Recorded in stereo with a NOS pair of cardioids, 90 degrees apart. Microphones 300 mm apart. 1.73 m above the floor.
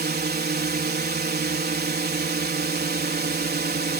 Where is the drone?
30° right.